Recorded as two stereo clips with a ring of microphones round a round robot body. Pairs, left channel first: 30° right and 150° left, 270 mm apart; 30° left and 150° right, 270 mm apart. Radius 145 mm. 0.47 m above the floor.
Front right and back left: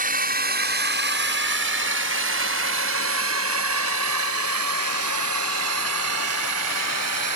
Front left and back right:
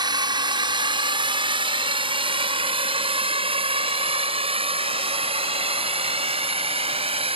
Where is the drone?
150° left; by 7.3 s 145° left.